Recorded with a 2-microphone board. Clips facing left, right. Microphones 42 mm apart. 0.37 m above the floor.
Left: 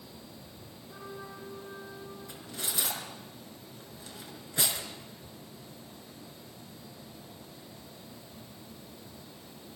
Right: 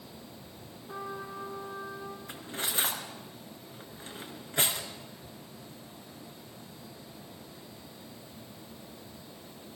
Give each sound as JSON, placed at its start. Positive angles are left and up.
{"t": 0.9, "sound": "a trumpet", "side_deg": -60, "distance_m": 7.0}
{"t": 2.3, "sound": "cutlery clinking", "side_deg": -40, "distance_m": 3.5}